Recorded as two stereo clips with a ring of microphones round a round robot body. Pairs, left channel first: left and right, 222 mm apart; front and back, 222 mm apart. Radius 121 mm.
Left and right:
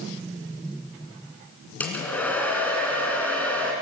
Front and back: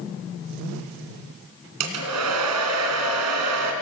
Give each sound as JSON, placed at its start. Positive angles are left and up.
{"t": 1.8, "sound": "a hair dryer", "azimuth_deg": 175, "distance_m": 3.0}